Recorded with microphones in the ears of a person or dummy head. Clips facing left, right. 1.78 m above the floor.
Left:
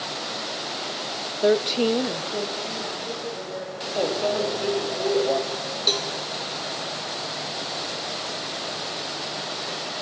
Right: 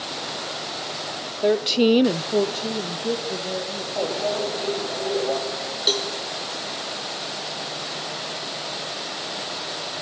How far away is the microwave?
About 3 m.